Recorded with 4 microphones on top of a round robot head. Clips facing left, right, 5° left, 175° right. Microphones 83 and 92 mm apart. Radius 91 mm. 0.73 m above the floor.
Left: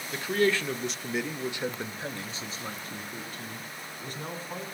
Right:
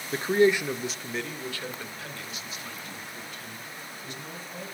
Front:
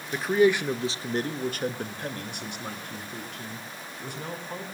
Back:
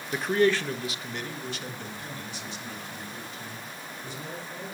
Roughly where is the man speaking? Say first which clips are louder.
Right 4 dB, front 2 dB; right.